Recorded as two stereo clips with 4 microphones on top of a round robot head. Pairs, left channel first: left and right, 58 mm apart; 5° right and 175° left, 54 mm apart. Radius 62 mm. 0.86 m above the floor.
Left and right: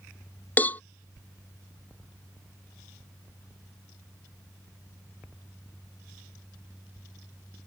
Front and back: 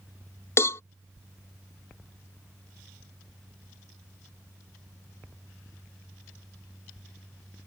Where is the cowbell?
25° left.